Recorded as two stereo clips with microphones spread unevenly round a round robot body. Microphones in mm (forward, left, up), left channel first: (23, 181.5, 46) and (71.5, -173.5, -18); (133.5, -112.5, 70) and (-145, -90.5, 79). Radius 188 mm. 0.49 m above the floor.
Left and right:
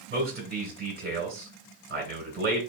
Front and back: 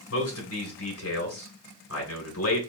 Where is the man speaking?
25° right, 3 m.